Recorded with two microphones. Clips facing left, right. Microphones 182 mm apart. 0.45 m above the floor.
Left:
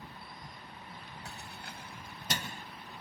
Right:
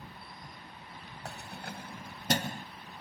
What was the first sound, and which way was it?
Keys jangling, 55° right (ahead or behind).